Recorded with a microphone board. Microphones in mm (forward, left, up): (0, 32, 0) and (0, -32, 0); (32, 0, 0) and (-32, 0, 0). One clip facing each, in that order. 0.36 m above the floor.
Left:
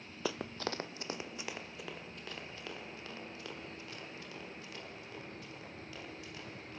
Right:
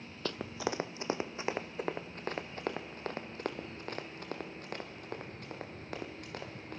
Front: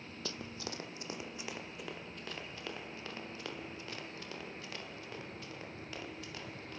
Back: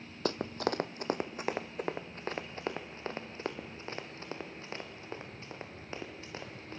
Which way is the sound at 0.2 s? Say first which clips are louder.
Right 2 dB, back 12 dB; 165° left.